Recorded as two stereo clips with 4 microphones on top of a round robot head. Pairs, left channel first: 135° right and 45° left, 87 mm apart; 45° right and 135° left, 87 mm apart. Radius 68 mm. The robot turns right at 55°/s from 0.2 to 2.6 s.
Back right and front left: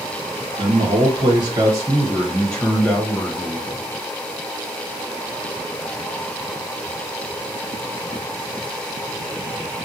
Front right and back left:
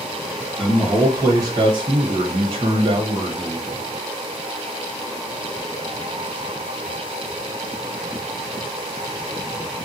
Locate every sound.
0.6 s a man speaking: 45° left, 1.3 m; by 3.8 s 155° left, 1.3 m